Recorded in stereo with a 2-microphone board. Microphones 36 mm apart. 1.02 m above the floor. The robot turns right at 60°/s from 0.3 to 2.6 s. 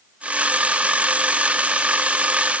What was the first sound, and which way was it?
Only background noise.